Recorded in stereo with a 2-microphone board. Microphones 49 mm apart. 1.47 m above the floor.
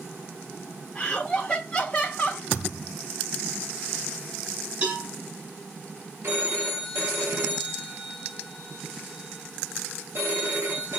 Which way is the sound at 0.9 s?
20° left (ahead or behind).